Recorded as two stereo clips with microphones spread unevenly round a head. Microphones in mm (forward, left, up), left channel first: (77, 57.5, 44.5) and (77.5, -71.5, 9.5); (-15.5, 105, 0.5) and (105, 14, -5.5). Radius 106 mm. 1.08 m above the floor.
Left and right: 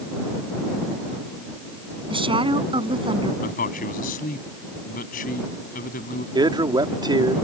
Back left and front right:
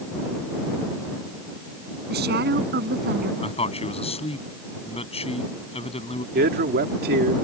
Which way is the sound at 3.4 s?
95° left.